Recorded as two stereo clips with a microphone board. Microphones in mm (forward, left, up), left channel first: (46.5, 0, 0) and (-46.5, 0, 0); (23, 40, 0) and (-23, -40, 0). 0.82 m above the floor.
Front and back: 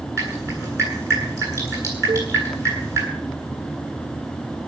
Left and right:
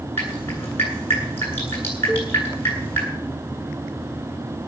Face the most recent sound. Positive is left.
turn(degrees=150)